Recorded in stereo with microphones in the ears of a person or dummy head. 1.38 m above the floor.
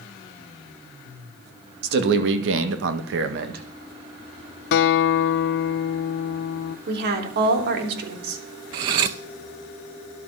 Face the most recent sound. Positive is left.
turn(degrees=-25)  # may be behind; listen again after turning